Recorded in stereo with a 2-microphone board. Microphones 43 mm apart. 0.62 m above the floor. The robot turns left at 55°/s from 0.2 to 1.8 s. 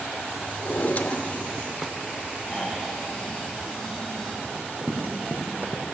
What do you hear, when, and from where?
0.6 s a drawer: 60° left, 0.5 m; by 2.0 s 5° right, 0.5 m
2.5 s snoring: 10° left (ahead or behind), 3.5 m
4.4 s running footsteps: 45° right (ahead or behind), 3.5 m; by 5.8 s 60° right (ahead or behind), 2.0 m